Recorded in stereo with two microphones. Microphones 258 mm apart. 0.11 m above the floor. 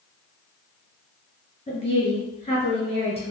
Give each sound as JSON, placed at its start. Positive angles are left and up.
{"t": 1.7, "sound": "a woman speaking", "side_deg": 25, "distance_m": 1.8}